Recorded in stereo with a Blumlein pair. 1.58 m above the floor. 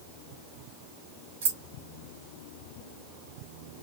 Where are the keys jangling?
65° right, 1.6 m.